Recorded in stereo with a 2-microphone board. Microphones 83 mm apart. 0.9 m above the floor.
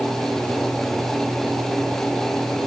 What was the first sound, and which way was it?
Only background noise.